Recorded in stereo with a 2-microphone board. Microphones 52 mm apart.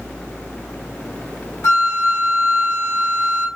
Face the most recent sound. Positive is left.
turn(degrees=70)  # may be behind; listen again after turning